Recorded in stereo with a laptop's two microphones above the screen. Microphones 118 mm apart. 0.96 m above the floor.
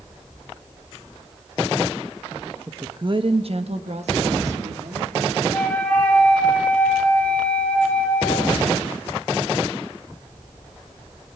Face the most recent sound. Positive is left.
turn(degrees=10)  # may be behind; listen again after turning